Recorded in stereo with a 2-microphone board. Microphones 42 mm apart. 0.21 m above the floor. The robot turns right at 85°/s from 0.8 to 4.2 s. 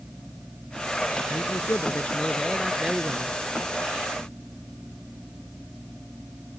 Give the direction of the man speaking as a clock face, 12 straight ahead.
10 o'clock.